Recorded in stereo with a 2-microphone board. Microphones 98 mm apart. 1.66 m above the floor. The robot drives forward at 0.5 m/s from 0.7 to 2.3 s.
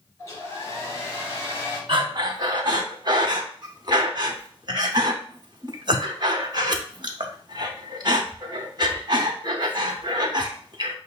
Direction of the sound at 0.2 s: 30° left (ahead or behind).